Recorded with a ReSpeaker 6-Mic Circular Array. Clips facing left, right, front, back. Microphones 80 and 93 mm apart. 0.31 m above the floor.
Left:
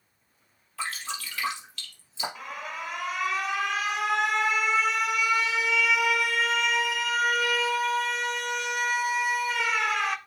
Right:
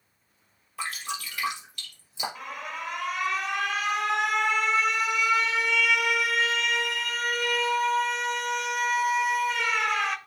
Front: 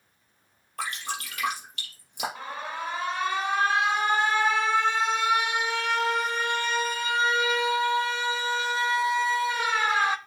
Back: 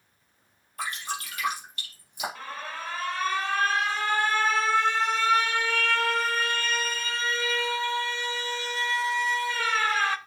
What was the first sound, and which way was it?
Dripping, 15° right.